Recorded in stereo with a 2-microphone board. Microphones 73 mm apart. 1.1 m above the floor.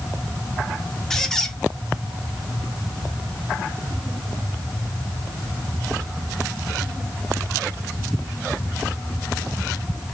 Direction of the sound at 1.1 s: 5° left (ahead or behind).